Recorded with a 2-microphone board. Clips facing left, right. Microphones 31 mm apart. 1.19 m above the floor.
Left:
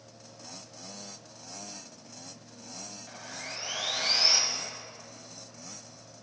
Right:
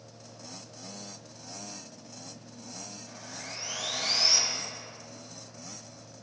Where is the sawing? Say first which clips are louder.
Left 3 dB; 25° left (ahead or behind), 1.3 m.